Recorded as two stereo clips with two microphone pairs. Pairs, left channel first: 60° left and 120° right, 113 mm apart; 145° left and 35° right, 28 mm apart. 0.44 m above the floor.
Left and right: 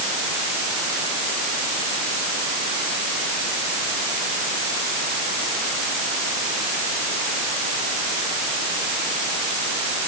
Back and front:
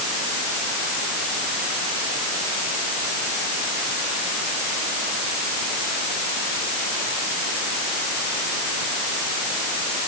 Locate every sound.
Only background noise.